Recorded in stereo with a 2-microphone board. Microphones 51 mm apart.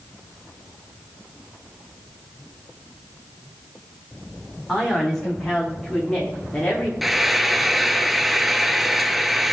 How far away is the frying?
About 0.8 m.